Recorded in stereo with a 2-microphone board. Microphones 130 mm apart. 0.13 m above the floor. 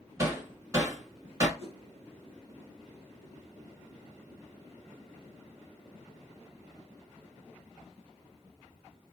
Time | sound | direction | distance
0.2 | hammering | 25° right (ahead or behind) | 0.9 m
1.6 | a whoosh | 20° left (ahead or behind) | 1.3 m